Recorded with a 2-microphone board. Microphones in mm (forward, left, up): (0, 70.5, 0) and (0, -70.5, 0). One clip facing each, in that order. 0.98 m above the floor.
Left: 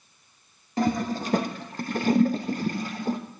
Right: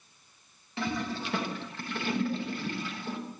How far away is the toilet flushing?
About 1.2 m.